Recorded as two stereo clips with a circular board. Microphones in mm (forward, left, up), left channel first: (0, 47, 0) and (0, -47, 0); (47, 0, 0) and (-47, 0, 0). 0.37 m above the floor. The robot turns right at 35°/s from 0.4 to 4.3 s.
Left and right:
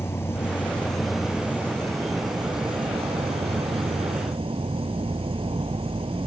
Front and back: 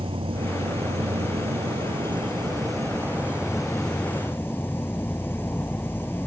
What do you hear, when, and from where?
0.0 s an insect: 155° left; by 6.3 s 70° right